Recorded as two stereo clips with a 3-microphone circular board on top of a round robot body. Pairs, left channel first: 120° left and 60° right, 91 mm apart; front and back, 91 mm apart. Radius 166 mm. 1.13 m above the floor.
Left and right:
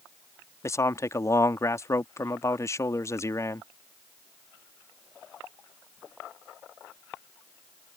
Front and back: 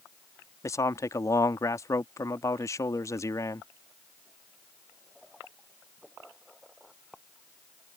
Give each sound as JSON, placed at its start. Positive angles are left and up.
{"t": 0.6, "sound": "a man speaking", "azimuth_deg": 60}